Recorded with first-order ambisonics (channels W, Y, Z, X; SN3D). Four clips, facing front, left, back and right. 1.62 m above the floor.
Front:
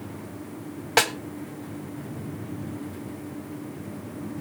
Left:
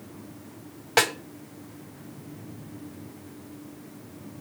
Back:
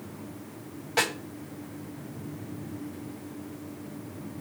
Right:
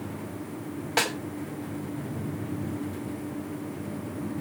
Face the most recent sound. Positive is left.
turn(degrees=20)